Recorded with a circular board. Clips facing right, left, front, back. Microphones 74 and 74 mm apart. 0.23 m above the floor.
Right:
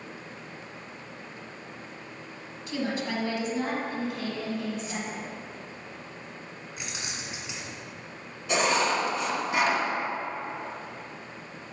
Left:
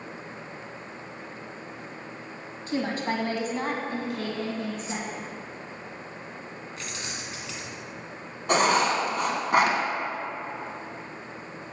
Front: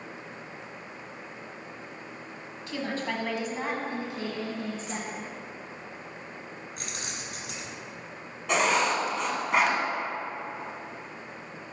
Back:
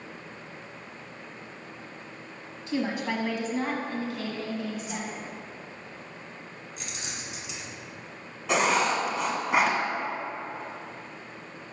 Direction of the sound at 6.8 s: 20° right.